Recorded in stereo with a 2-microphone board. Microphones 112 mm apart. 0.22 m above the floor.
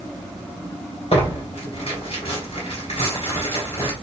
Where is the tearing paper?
60° left (ahead or behind), 2.5 m.